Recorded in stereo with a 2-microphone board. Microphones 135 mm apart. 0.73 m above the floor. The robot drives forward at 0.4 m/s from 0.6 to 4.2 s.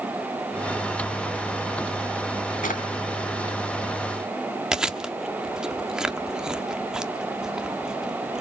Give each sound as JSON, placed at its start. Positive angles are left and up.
{"t": 2.6, "sound": "a drawer", "side_deg": 80, "distance_m": 3.0}
{"t": 4.7, "sound": "chewing", "side_deg": -5, "distance_m": 1.0}